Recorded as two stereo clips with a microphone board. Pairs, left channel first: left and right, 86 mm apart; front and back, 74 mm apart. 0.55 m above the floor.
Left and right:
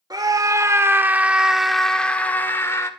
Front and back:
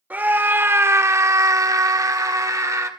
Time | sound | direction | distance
0.1 | a scream | 115° right | 1.8 m